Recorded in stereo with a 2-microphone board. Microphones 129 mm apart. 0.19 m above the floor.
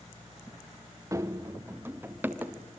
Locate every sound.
1.1 s running footsteps: 25° right (ahead or behind), 1.5 m; by 2.8 s 10° right (ahead or behind), 3.5 m